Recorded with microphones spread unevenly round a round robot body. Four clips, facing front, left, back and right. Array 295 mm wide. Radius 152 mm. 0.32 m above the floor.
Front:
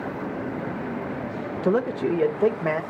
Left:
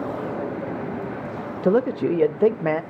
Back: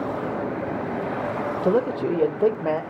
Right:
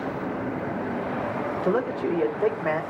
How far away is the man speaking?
About 0.9 m.